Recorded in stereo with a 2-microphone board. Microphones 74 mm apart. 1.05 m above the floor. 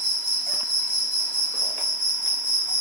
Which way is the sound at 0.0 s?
85° left.